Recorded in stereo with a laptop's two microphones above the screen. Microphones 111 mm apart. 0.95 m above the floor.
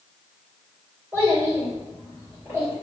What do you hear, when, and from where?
1.1 s a child speaking: 25° right (ahead or behind), 1.8 m